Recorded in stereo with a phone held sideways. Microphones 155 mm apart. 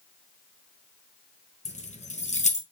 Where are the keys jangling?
50° left (ahead or behind), 0.8 m.